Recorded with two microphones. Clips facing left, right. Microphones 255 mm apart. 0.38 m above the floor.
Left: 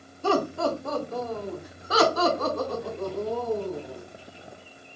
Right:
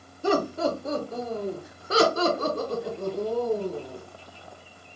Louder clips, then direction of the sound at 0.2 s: Right 1 dB; 15° right (ahead or behind).